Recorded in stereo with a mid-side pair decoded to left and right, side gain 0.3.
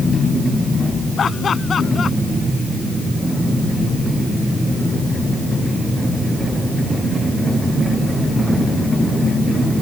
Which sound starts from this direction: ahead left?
Laughter, at 1.2 s.